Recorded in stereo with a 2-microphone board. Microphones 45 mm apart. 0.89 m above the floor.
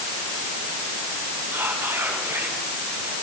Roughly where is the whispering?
Right.